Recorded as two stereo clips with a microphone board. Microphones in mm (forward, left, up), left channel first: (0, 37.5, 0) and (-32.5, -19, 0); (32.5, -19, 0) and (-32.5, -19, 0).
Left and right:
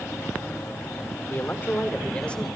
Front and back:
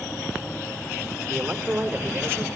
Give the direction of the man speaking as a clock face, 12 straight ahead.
8 o'clock.